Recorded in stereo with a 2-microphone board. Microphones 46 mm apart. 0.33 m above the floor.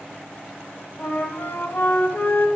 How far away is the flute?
About 1.4 m.